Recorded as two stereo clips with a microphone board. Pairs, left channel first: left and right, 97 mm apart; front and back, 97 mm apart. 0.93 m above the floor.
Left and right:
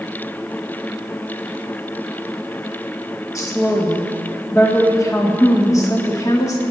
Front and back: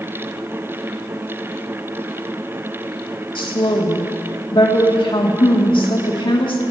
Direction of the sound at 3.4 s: 35° left.